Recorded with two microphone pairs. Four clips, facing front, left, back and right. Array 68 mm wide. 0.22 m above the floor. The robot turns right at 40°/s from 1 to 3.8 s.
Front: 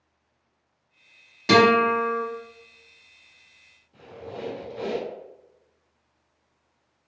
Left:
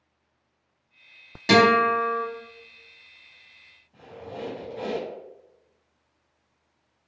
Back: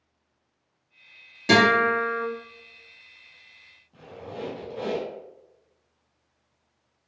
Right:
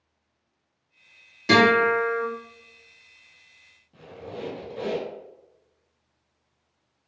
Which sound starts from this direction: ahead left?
A guitar, at 1.5 s.